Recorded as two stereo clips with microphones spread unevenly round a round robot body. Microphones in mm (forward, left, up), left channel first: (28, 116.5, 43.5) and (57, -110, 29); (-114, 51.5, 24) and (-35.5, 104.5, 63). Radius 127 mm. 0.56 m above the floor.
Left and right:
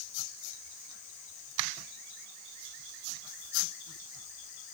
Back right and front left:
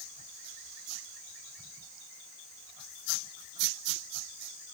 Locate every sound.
Only background noise.